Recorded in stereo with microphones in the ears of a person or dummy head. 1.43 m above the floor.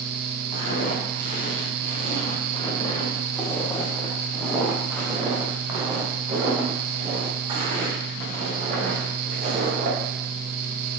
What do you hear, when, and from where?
0.5 s footsteps: 45° left (ahead or behind), 3.5 m; by 10.0 s 40° right (ahead or behind), 4.5 m